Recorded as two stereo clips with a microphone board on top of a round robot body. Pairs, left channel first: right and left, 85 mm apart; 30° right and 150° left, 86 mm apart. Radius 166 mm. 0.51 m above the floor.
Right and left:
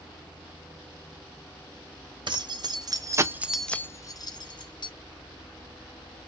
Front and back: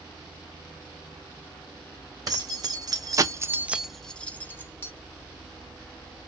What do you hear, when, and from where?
2.3 s keys jangling: 110° left, 1.1 m; by 4.9 s 90° right, 1.1 m